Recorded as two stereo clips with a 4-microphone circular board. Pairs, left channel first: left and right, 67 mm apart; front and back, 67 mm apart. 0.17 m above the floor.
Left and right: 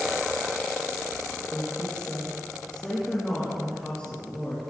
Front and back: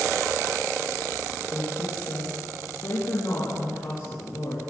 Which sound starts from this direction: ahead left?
A woman speaking, at 1.5 s.